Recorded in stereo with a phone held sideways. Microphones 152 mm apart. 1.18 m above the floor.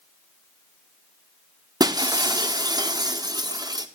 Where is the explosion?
No explosion in this recording.